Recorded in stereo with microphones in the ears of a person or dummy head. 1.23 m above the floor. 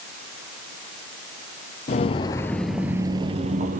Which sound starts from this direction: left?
Footsteps, at 1.9 s.